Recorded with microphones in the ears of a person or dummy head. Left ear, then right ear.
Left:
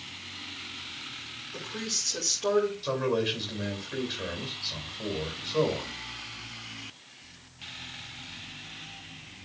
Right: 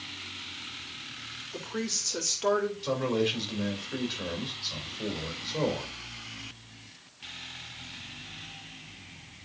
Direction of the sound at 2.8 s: 5° right (ahead or behind).